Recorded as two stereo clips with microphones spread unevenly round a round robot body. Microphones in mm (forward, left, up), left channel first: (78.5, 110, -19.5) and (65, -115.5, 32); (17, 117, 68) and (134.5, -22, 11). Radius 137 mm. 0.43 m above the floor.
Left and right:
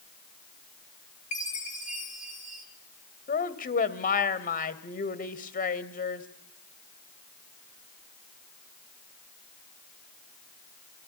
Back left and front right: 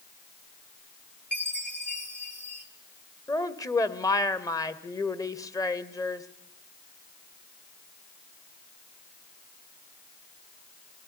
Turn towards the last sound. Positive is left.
turn(degrees=50)